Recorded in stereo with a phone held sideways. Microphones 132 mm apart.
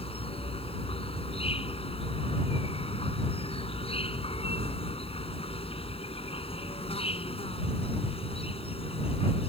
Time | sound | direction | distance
0.0 | an insect | 45° left (ahead or behind) | ?